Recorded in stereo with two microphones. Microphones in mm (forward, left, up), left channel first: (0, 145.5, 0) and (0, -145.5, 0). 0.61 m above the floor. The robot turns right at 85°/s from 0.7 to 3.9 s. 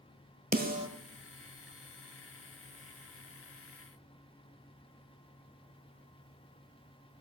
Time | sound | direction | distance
0.5 | a snare drum | 30° right (ahead or behind) | 1.1 m